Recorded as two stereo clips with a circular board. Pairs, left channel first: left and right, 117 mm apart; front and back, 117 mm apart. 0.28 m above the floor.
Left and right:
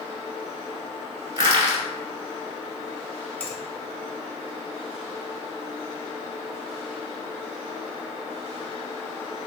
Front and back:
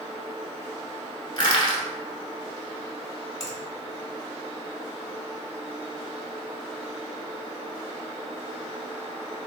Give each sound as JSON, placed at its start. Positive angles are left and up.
{"t": 1.4, "sound": "crushing", "azimuth_deg": -45, "distance_m": 1.1}
{"t": 3.4, "sound": "a finger snap", "azimuth_deg": 25, "distance_m": 1.0}